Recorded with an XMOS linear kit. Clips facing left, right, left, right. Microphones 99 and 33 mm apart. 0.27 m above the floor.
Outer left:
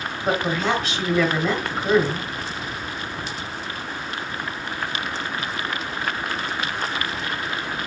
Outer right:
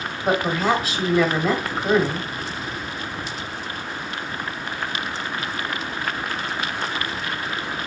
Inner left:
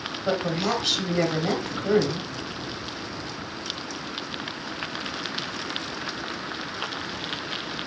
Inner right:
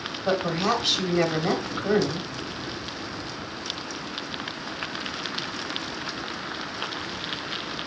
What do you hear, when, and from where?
0.2 s a woman speaking: 5° right (ahead or behind), 1.2 m